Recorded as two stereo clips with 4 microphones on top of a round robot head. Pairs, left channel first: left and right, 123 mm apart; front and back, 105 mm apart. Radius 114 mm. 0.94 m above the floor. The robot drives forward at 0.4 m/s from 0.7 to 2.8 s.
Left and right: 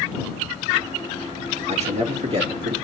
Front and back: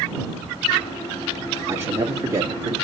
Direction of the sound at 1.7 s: 110° right.